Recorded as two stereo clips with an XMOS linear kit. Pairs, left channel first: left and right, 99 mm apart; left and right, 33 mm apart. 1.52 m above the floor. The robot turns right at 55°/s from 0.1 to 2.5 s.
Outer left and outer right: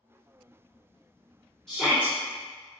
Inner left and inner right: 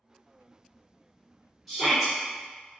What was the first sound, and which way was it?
A shout, 5° left (ahead or behind).